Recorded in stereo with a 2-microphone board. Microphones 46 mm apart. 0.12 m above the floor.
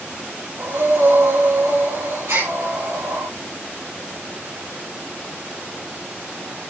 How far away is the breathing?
About 5.5 m.